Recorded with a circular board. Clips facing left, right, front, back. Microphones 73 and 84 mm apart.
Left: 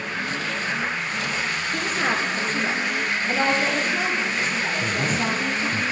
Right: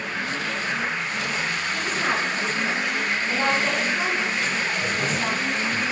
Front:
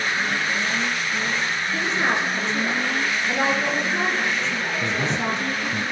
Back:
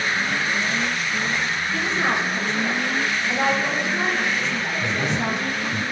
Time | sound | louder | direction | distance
1.7 | a woman speaking | left 2 dB, even | 55° left | 4.5 m
4.7 | a man speaking | left 1 dB, even | 45° left | 2 m